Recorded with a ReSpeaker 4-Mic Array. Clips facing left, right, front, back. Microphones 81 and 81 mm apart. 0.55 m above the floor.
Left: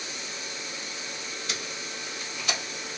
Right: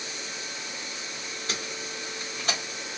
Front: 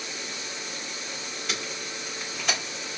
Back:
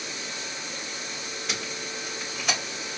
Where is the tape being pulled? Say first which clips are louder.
Right 3 dB, even; 90° right, 1.1 m.